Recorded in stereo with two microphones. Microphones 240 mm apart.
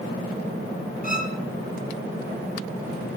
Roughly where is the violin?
Left.